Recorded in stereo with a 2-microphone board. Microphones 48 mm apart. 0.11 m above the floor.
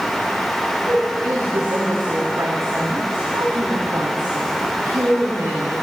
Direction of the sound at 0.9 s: 70° right (ahead or behind).